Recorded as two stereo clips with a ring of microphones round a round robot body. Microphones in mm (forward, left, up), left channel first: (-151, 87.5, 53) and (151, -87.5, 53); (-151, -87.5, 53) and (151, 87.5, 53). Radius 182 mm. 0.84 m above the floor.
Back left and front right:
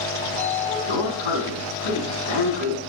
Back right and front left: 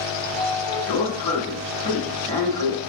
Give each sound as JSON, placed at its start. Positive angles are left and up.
{"t": 0.2, "sound": "a sliding door", "azimuth_deg": 130, "distance_m": 4.5}